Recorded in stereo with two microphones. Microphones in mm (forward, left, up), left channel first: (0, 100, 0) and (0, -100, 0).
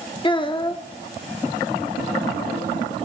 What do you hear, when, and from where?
0.2 s a child speaking: 25° left (ahead or behind), 0.6 m